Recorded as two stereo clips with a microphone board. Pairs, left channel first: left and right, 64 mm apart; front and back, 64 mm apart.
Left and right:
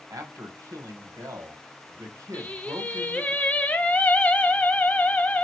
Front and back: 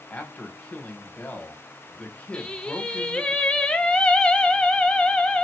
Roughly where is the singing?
Ahead left.